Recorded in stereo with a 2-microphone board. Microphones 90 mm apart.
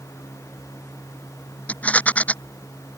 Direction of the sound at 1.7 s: 15° left (ahead or behind).